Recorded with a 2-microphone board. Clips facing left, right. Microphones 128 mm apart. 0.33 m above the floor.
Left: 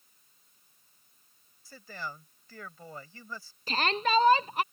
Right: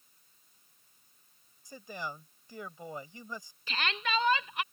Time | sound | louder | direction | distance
1.6 | a man speaking | right 1 dB | 20° right (ahead or behind) | ?
3.7 | a shout | left 6 dB | 40° left (ahead or behind) | ?